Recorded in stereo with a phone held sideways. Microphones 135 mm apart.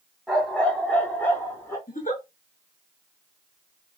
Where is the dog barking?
Centre (ahead or behind), 2 m; by 1.8 s 20° left (ahead or behind), 3 m.